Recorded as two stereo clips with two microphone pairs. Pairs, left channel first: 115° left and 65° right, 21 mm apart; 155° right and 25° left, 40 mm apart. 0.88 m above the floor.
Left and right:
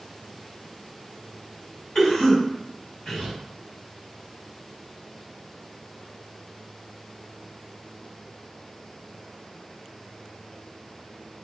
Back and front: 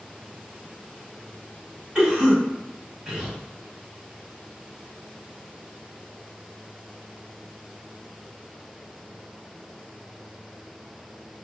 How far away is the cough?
About 1.9 m.